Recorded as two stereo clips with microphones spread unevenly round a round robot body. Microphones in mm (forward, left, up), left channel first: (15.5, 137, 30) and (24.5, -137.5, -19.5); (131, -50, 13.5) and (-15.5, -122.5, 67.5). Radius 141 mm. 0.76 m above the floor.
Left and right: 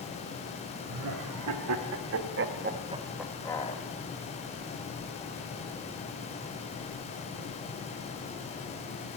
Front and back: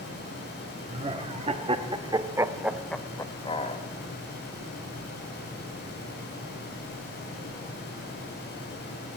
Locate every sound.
0.9 s laughter: 95° right, 1.7 m; by 3.8 s 25° left, 0.9 m